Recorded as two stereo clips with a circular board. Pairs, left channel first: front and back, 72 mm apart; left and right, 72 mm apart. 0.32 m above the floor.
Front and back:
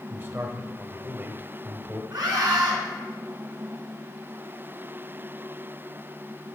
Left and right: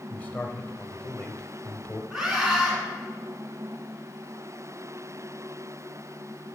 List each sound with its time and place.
0.1 s a man speaking: 150° left, 1.2 m
2.1 s a scream: 170° right, 4 m